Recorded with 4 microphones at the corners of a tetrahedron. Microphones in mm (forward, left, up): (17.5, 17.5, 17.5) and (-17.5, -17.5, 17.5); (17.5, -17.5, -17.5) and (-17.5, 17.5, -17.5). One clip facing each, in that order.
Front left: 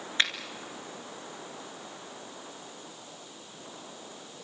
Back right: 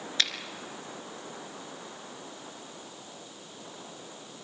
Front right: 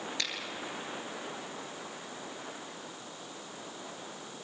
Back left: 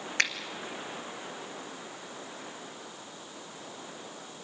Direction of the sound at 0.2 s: 105° left.